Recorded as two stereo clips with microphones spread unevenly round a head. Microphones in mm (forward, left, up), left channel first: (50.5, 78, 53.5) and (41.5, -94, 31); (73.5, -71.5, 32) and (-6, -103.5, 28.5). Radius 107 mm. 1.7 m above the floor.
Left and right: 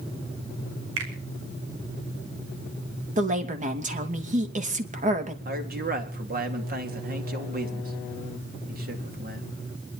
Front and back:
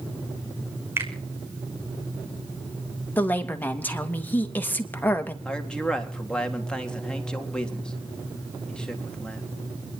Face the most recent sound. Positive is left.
turn(degrees=-60)